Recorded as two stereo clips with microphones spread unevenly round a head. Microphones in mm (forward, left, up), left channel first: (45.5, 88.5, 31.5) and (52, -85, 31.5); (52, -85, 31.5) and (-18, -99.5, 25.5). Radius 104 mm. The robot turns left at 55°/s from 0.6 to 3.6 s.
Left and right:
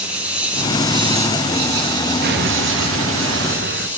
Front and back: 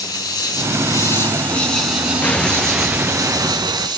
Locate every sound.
0.0 s an insect: 5° right, 3 m; by 4.0 s 170° right, 3 m
2.2 s an explosion: 55° right, 1.1 m; by 3.9 s 135° right, 1.1 m